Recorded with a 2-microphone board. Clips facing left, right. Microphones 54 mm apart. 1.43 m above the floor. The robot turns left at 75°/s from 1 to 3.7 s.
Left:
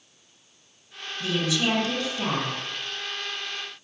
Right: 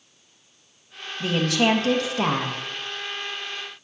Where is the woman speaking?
35° right, 1.3 m; by 2.6 s 145° right, 1.3 m.